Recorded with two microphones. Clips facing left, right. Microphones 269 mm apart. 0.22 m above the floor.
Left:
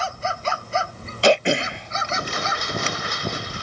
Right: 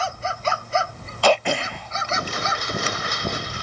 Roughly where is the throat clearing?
Left.